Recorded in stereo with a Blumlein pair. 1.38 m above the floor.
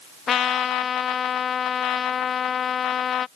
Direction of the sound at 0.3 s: 25° left.